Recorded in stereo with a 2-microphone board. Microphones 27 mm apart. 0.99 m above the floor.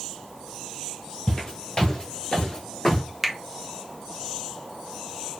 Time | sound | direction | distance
1.3 | footsteps | 35° left (ahead or behind) | 1.4 m
3.2 | a finger snap | 10° right (ahead or behind) | 0.5 m